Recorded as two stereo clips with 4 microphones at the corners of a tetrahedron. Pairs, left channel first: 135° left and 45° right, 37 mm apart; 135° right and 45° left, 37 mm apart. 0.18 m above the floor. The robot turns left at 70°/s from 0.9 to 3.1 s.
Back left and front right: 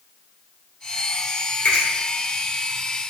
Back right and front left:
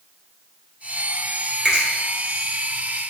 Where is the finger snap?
125° left, 1.8 m; by 1.9 s 115° left, 1.8 m.